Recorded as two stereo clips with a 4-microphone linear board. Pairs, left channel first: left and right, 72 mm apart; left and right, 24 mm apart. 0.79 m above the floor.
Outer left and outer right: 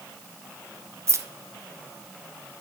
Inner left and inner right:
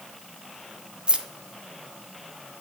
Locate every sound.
1.1 s keys jangling: 40° right (ahead or behind), 0.5 m